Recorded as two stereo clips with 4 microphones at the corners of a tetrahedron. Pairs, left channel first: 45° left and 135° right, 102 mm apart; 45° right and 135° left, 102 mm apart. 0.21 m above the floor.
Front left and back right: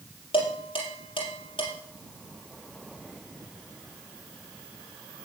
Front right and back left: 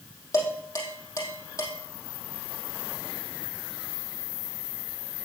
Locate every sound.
0.3 s dishes clattering: 10° left, 4.5 m